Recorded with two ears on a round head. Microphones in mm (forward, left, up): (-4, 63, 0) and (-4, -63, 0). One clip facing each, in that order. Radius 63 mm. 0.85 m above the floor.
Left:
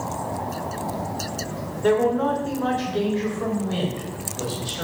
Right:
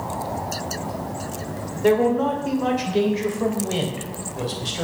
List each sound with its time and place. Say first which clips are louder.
1.8 s a man speaking: right 1 dB; 10° right (ahead or behind), 2.5 m; by 4.8 s 25° right (ahead or behind), 4 m